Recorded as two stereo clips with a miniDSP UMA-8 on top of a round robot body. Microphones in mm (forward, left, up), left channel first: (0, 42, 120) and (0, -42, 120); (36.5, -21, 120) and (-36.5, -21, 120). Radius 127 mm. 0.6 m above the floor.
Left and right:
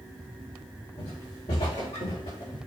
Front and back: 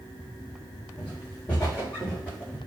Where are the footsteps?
70° left, 4 m; by 2.6 s 75° left, 6 m.